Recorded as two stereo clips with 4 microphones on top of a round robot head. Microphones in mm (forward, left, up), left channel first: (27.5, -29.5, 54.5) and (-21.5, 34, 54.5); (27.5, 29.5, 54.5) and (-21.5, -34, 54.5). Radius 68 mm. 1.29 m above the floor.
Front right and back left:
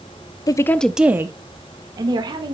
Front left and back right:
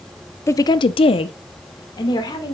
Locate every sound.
0.5 s a woman speaking: 5° right, 0.7 m; by 2.5 s 95° left, 2 m